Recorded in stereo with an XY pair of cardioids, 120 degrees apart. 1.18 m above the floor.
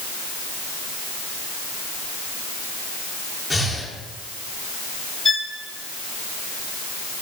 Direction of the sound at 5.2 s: 20° left.